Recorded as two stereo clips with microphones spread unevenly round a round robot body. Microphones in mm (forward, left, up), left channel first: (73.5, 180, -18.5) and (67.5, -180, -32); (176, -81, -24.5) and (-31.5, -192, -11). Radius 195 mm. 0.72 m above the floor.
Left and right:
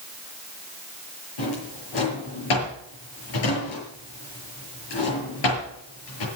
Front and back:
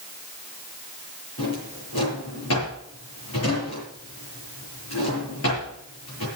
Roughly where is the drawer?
Left.